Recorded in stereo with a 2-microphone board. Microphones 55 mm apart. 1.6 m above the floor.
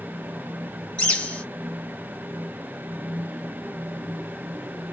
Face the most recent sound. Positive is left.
turn(degrees=25)  # may be behind; listen again after turning